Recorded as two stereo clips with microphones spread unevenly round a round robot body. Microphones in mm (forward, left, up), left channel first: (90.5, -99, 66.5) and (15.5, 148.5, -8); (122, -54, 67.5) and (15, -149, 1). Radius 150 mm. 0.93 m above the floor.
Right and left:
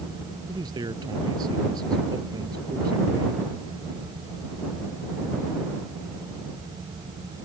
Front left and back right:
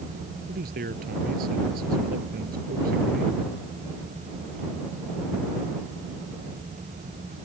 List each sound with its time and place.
0.5 s a man speaking: 175° right